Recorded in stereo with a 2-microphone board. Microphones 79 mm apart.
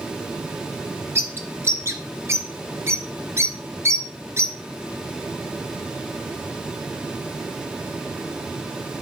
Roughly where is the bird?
Right.